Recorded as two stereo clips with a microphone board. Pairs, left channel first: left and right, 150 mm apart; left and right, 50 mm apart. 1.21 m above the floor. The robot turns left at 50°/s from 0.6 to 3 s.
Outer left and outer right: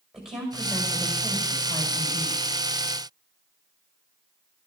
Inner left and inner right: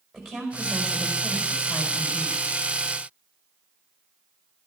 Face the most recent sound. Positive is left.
turn(degrees=60)